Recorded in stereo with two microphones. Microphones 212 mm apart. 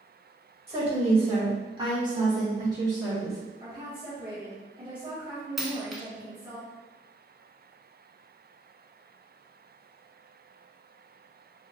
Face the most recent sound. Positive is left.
turn(degrees=0)  # may be behind; listen again after turning